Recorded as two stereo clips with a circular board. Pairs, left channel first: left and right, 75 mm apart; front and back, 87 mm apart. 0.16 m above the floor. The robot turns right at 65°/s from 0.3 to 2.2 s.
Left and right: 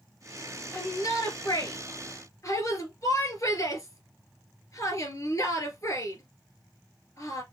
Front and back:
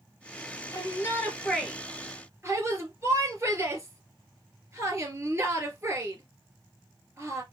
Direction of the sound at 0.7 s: 30° left.